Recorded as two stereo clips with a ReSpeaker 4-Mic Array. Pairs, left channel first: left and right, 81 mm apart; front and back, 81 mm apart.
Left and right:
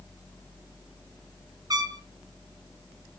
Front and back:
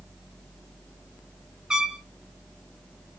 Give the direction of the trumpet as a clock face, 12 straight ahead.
3 o'clock.